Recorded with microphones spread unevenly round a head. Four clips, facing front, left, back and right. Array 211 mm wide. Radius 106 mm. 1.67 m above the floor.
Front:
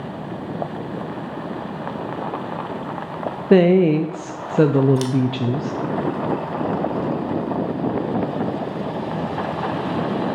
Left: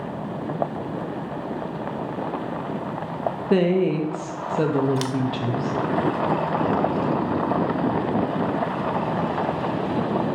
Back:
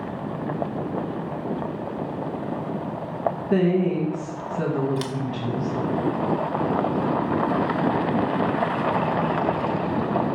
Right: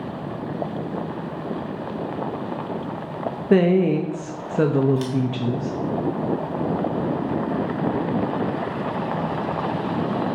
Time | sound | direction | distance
3.5 | a woman speaking | 5° right | 0.6 m
5.0 | scissors | 110° left | 0.8 m